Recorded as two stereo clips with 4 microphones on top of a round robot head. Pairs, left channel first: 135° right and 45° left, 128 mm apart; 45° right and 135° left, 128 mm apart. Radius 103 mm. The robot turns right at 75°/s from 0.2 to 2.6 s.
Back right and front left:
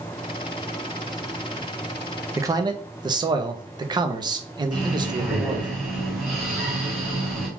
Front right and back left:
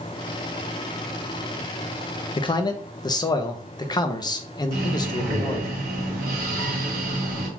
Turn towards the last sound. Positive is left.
turn(degrees=130)